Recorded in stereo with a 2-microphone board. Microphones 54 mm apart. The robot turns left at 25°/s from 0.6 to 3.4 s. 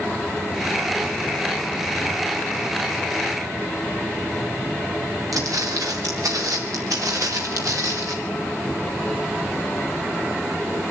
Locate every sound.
5.3 s footsteps: 85° right, 5.5 m; by 8.2 s 75° right (ahead or behind), 4.5 m